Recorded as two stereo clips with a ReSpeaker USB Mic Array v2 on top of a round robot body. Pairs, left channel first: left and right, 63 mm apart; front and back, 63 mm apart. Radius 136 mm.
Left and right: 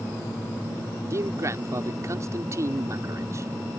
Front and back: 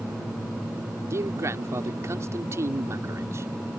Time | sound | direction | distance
1.1 | a man speaking | 135° right | ?